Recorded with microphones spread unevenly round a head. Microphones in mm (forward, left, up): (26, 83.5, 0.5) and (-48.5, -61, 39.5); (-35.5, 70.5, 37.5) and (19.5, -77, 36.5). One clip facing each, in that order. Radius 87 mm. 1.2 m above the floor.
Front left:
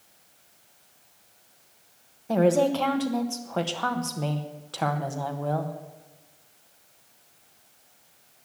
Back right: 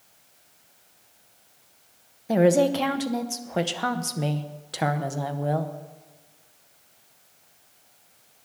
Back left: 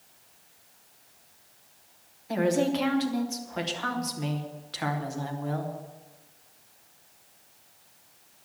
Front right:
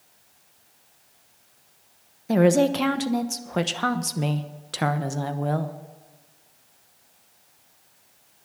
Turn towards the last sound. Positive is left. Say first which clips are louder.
# back right 2 dB, front right 7 dB
turn(degrees=-40)